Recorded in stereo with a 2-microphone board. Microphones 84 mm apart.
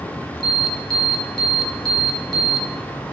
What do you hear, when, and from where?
0.4 s an alarm: 5° left (ahead or behind), 2 m